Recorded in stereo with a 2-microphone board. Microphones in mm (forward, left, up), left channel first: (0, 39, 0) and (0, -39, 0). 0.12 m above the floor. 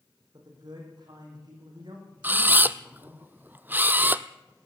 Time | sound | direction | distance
0.3 | a man speaking | 60° right (ahead or behind) | 6.5 m
2.2 | a camera shutter | 25° right (ahead or behind) | 0.7 m